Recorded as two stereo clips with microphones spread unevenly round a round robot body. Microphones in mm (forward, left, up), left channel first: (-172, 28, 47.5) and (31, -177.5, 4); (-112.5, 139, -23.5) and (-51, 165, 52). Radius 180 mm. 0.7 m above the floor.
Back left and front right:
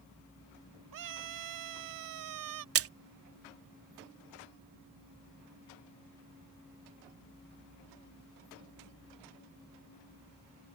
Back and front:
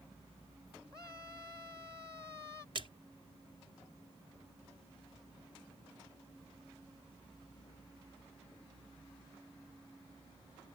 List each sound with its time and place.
0.9 s a scream: 50° right
2.8 s a splash: 60° right